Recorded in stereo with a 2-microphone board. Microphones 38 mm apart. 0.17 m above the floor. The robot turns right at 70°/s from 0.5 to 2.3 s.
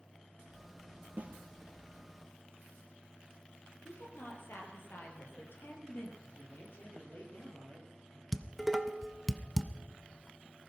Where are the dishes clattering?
Centre (ahead or behind), 0.7 m.